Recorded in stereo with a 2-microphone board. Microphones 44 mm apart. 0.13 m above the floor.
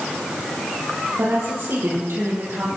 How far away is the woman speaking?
About 4 m.